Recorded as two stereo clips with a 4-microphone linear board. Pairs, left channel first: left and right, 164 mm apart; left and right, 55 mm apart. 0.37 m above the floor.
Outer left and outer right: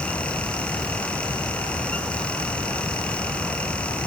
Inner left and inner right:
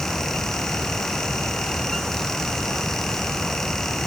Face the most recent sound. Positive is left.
No sound to turn to.